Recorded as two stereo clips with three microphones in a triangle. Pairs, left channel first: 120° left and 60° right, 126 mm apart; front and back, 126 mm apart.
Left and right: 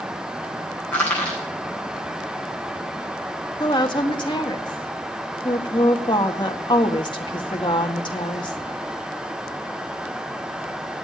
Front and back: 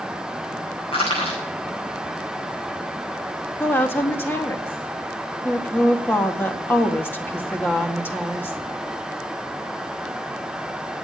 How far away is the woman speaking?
About 1.9 m.